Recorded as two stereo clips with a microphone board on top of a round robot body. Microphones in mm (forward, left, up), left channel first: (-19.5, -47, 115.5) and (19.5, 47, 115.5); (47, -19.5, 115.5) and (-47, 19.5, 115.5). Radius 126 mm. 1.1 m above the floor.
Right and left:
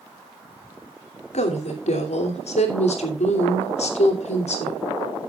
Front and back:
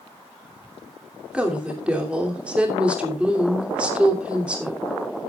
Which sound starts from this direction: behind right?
A woman speaking, at 1.3 s.